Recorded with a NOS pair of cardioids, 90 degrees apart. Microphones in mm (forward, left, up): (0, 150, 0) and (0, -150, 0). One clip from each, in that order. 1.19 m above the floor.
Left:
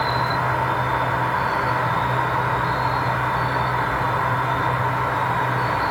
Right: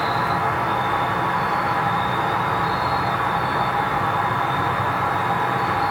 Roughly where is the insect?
Ahead.